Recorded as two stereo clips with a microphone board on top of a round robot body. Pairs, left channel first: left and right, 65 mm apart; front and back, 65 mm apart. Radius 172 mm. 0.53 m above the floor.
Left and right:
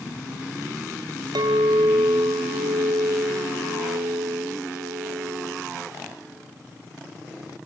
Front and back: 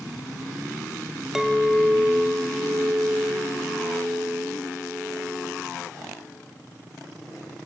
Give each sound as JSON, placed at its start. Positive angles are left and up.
{"t": 1.4, "sound": "a clink", "azimuth_deg": -95, "distance_m": 1.9}